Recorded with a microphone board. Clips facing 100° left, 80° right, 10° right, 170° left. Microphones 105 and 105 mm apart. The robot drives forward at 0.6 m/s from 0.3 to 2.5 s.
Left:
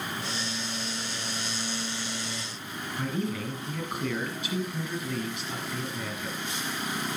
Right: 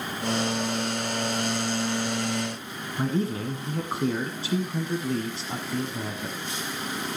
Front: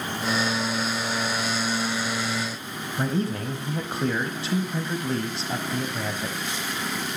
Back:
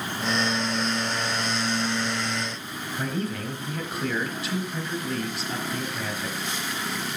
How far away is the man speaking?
About 1.5 m.